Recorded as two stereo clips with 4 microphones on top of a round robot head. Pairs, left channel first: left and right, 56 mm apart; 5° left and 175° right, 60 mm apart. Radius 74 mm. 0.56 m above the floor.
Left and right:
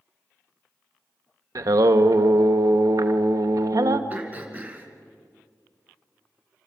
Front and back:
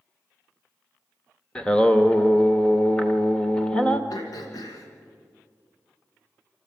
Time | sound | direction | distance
1.6 | singing | 75° right | 1.0 m
4.1 | throat clearing | 30° right | 2.5 m